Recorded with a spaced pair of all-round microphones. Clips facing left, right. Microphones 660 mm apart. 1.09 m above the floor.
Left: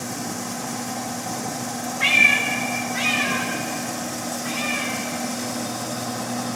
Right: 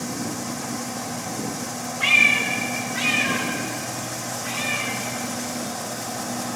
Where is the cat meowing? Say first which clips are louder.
Left 1 dB; 50° left (ahead or behind), 1.1 m; by 6.6 s 10° left (ahead or behind), 4 m.